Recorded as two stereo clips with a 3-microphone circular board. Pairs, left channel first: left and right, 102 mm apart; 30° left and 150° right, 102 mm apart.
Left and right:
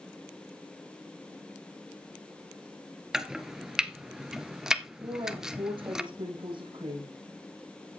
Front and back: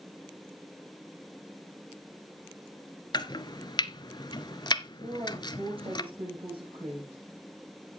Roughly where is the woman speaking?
Behind right.